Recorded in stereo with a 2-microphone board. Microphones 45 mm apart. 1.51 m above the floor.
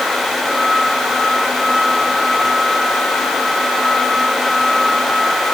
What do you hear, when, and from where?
Only background noise.